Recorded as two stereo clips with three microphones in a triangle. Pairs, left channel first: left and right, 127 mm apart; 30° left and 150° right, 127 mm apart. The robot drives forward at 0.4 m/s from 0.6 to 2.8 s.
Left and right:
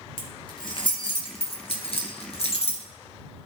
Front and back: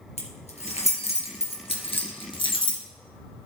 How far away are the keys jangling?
About 2 m.